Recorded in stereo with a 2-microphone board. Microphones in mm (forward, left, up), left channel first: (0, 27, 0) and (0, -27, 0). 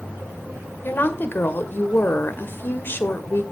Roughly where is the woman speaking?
Left.